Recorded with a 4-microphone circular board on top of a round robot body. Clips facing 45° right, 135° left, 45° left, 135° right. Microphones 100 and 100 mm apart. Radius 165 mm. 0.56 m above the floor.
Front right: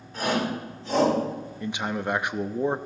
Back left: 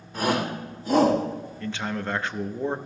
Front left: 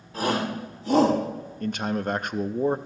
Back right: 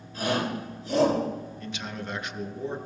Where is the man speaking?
25° left, 0.8 m.